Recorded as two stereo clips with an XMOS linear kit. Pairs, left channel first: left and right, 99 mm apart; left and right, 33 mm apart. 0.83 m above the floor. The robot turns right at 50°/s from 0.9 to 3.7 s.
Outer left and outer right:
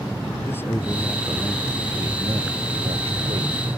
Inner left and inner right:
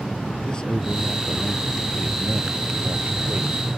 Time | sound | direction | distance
0.5 | a man speaking | 160° left | ?